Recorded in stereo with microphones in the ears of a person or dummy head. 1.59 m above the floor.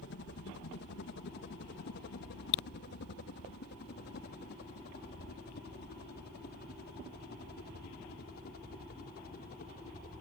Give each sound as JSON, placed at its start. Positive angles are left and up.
{"t": 0.0, "sound": "a helicopter", "side_deg": 60}